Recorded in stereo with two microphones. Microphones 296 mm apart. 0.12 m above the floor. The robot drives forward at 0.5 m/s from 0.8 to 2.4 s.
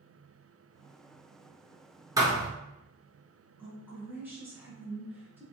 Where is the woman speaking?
5° right (ahead or behind), 1.3 m.